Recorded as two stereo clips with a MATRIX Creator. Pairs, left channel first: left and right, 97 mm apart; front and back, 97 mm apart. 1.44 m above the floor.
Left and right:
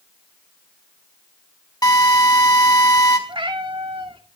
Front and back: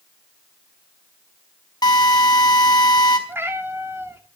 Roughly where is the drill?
Ahead left.